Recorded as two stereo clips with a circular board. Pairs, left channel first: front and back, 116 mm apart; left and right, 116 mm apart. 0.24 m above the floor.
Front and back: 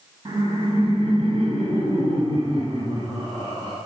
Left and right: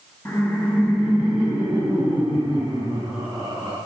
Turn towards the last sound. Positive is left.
turn(degrees=-150)